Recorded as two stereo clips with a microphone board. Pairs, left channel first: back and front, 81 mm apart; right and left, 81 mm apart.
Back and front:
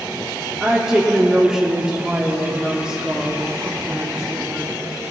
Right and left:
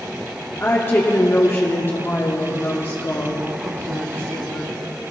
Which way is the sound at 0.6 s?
70° right.